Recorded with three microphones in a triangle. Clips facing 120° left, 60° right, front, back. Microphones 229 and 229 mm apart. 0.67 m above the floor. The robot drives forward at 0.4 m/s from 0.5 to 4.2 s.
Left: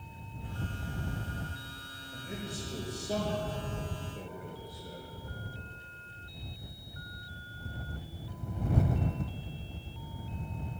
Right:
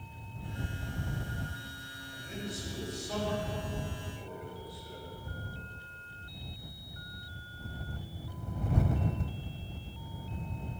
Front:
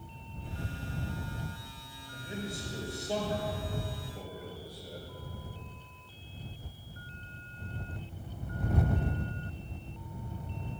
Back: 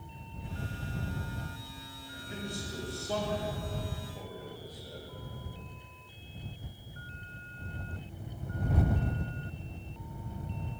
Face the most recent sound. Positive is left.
turn(degrees=80)